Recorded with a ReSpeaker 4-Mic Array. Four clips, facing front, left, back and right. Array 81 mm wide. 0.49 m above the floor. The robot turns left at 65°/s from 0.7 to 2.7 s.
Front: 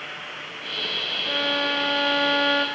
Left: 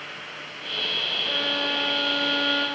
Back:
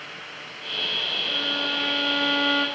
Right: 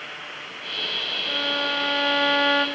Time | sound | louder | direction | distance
1.3 | a violin | right 2 dB, front 6 dB | 25° left | 2.5 m